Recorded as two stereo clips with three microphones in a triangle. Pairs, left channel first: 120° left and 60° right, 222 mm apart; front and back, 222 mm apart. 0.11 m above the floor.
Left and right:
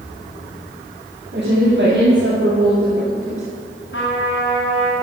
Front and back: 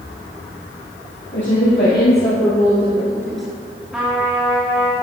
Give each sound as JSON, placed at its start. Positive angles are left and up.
{"t": 1.3, "sound": "a woman speaking", "azimuth_deg": -25, "distance_m": 3.5}
{"t": 3.9, "sound": "a trumpet", "azimuth_deg": 95, "distance_m": 3.0}